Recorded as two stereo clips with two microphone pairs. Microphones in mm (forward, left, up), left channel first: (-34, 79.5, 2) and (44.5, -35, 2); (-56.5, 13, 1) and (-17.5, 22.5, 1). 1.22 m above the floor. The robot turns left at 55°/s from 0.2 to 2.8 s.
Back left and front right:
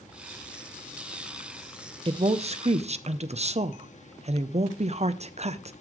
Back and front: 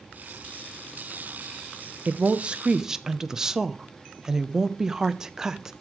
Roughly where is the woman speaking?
Ahead.